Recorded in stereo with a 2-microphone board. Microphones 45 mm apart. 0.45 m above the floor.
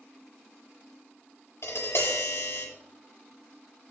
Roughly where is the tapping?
Left.